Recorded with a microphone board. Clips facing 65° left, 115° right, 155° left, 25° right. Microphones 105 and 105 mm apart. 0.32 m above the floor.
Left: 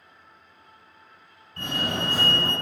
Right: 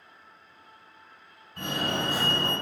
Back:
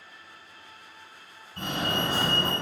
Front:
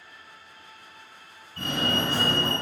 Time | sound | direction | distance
1.6 | a fire alarm | 165° right | 1.9 m